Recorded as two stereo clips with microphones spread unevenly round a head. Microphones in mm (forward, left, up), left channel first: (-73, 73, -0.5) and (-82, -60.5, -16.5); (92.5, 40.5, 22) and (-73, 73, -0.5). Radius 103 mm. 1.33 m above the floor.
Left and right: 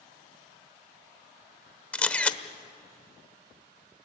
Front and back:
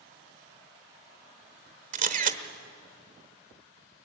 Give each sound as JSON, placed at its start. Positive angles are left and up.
{"t": 1.9, "sound": "a camera shutter", "azimuth_deg": 155, "distance_m": 1.2}